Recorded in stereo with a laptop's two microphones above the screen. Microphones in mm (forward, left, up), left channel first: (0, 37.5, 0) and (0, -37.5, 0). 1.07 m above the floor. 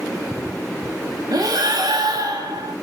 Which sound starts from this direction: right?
Breathing, at 1.3 s.